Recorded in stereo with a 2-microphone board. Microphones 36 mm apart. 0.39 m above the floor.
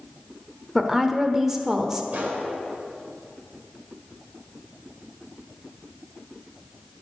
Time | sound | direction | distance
0.8 | a woman speaking | 10° right (ahead or behind) | 0.8 m
2.1 | a gunshot | 45° right (ahead or behind) | 1.9 m